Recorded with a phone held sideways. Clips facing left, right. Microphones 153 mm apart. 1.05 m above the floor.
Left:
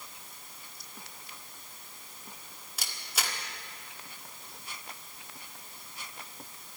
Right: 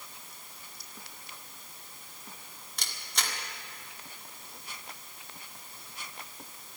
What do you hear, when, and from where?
2.8 s a camera shutter: 5° left (ahead or behind), 1.5 m